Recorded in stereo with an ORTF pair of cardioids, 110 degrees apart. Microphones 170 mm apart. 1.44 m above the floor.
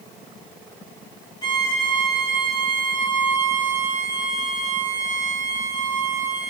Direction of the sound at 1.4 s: 25° left.